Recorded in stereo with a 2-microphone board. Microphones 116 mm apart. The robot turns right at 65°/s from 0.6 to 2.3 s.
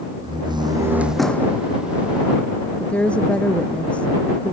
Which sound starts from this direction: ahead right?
A door slam, at 0.2 s.